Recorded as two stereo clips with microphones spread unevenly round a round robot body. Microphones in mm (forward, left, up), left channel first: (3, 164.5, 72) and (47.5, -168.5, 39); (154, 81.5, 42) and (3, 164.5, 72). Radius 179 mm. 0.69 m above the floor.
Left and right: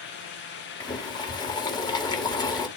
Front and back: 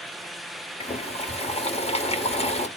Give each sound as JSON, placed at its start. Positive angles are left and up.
{"t": 0.8, "sound": "boiling", "azimuth_deg": 15, "distance_m": 1.7}